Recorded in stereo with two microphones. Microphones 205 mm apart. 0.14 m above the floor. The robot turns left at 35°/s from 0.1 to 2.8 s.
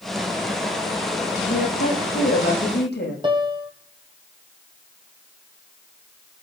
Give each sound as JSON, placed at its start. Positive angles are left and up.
{"t": 1.4, "sound": "a woman speaking", "azimuth_deg": 110, "distance_m": 8.0}
{"t": 3.2, "sound": "a piano", "side_deg": -25, "distance_m": 2.0}